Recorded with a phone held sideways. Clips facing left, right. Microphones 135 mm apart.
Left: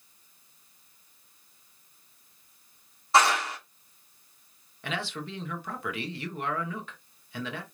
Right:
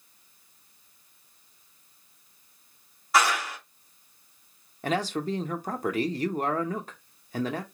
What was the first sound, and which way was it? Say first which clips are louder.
A clap: left 2 dB; 25° left (ahead or behind).